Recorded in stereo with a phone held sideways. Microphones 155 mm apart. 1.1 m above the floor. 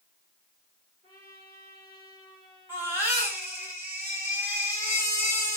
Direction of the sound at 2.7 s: 10° right (ahead or behind).